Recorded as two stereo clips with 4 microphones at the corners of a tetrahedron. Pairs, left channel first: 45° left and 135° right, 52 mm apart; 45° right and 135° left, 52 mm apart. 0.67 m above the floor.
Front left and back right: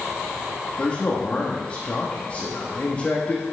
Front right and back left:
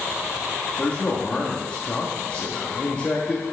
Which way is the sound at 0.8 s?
5° left.